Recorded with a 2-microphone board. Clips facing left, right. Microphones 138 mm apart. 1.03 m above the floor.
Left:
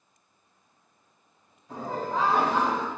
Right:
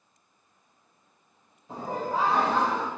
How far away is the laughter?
About 1.0 m.